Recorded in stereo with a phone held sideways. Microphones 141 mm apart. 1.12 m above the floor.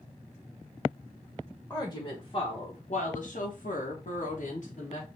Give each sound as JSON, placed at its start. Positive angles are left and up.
{"t": 1.7, "sound": "a woman speaking", "side_deg": 15, "distance_m": 0.9}